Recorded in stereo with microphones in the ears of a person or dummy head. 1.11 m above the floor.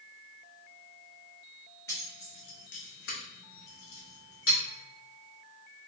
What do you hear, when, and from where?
1.9 s keys jangling: 15° left (ahead or behind), 0.7 m; by 4.6 s 75° left (ahead or behind), 1.3 m